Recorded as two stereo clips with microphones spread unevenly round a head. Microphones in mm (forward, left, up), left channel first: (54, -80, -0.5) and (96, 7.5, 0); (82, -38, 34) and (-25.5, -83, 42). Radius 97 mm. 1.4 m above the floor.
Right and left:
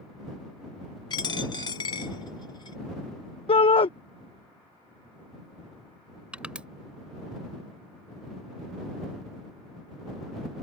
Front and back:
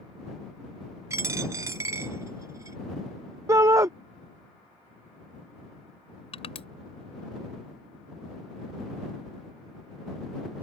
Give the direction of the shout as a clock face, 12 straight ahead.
3 o'clock.